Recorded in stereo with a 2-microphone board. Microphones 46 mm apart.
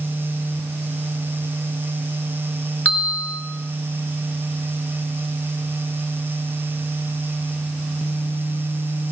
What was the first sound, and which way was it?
A bell, 30° left (ahead or behind).